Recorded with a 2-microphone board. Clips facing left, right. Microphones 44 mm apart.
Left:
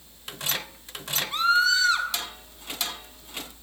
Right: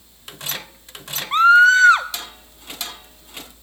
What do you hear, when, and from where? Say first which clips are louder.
1.3 s a scream: right 11 dB; 45° right (ahead or behind), 0.7 m